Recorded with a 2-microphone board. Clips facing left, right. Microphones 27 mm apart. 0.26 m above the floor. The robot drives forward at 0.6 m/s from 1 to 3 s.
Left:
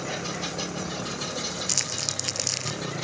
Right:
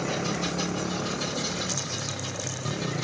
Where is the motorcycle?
15° right (ahead or behind); by 3.0 s 5° left (ahead or behind).